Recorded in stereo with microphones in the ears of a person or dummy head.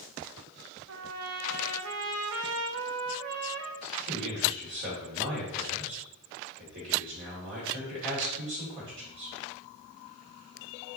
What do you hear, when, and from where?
0.9 s a trumpet: 80° right, 0.5 m
3.8 s a man speaking: 65° right (ahead or behind), 1.9 m